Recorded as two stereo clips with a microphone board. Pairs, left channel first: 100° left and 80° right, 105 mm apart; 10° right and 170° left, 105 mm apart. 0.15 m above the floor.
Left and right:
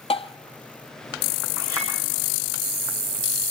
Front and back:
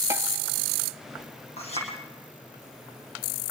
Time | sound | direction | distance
0.1 | tapping | 110° left | 0.7 m
1.6 | a clink | 15° right | 6.5 m